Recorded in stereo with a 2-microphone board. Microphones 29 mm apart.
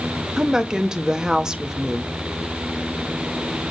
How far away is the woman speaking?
About 0.9 m.